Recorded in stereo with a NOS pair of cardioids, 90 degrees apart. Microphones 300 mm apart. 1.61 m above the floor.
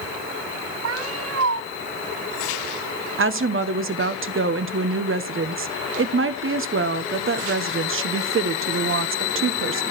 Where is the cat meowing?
50° right, 3.5 m.